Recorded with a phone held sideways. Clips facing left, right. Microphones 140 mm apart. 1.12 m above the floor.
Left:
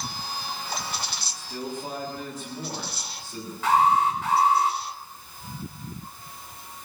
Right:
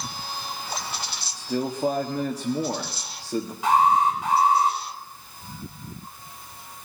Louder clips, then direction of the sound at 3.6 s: Right 1 dB; 15° right (ahead or behind).